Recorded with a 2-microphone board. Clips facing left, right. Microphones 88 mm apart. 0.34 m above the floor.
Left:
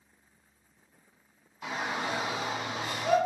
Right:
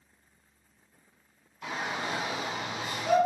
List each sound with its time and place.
1.6 s a shout: 15° left (ahead or behind), 2 m; by 3.2 s 45° left (ahead or behind), 1.5 m